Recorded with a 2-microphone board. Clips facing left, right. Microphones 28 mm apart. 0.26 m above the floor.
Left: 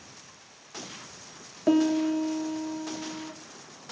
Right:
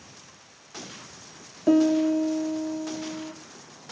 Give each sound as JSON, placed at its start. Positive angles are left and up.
{"t": 1.7, "sound": "a piano", "side_deg": 15, "distance_m": 1.2}